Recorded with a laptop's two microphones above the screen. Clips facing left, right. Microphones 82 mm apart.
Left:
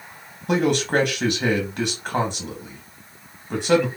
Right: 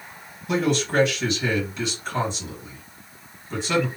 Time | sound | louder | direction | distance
0.5 | a man speaking | left 2 dB | 55° left (ahead or behind) | 1.2 m